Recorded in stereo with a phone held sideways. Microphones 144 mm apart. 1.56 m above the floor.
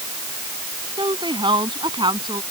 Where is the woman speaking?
35° right (ahead or behind); by 2.4 s 30° right (ahead or behind).